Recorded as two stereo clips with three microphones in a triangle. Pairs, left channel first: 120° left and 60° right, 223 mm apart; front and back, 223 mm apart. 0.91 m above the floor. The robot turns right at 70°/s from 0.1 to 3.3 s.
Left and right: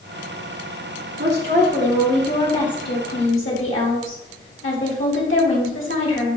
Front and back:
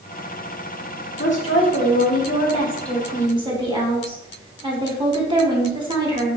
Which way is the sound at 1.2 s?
35° right.